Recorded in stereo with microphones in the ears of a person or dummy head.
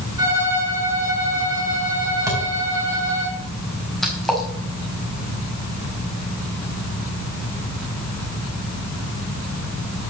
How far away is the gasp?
I don't hear a gasp.